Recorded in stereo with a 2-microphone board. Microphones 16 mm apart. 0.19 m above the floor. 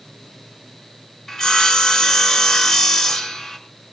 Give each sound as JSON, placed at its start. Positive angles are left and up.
{"t": 1.3, "sound": "sawing", "side_deg": 40, "distance_m": 2.0}